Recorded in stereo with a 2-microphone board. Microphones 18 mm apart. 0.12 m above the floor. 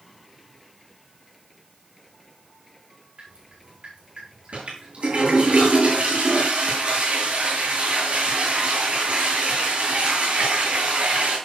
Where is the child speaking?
I don't hear a child speaking.